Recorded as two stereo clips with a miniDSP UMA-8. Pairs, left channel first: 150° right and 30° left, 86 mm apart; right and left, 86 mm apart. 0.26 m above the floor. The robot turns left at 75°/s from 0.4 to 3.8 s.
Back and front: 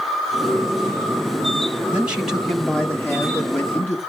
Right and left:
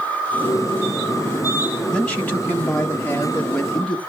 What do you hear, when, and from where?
1.9 s a man speaking: 20° right, 1.3 m; by 4.0 s 165° right, 1.3 m